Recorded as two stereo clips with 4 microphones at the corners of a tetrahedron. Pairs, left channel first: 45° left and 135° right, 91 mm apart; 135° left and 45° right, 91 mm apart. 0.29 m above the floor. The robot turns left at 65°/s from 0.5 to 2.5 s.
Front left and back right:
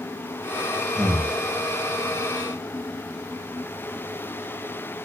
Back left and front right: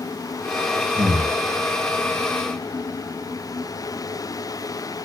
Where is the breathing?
50° right, 0.6 m; by 1.4 s 75° right, 0.6 m.